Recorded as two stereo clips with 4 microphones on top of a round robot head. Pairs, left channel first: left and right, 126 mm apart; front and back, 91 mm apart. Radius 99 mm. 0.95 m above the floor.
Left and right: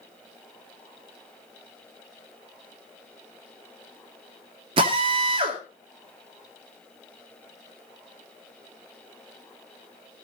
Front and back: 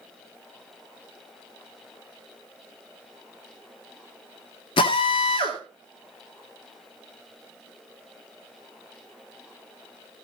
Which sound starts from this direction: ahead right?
A drill, at 4.8 s.